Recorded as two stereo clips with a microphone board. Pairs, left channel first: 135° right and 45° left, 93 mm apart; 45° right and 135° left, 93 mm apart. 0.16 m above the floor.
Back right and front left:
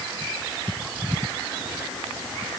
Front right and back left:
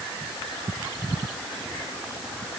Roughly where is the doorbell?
I don't hear a doorbell.